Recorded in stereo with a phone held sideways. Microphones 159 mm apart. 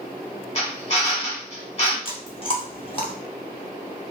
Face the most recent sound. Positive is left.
turn(degrees=35)  # may be behind; listen again after turning